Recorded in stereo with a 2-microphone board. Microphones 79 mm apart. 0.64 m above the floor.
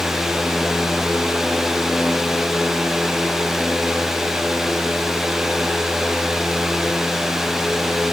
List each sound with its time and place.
Only background noise.